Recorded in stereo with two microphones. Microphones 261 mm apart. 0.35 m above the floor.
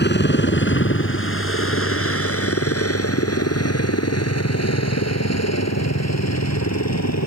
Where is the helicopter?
40° left (ahead or behind); by 7.3 s 75° left (ahead or behind).